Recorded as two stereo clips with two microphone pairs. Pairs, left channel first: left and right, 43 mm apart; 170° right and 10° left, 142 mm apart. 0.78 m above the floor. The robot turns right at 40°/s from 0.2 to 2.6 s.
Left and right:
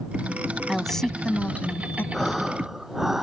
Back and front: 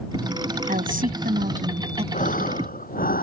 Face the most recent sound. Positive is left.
turn(degrees=-175)